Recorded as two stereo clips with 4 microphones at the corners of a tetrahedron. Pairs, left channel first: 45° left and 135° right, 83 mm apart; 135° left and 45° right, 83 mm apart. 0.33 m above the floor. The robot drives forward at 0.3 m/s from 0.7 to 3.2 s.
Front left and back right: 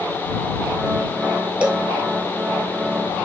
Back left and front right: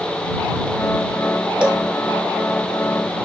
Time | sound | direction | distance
1.6 | a cowbell | 85° right | 0.6 m